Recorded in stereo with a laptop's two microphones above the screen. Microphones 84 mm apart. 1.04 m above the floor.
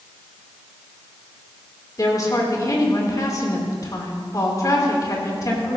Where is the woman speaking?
45° left (ahead or behind), 3 m.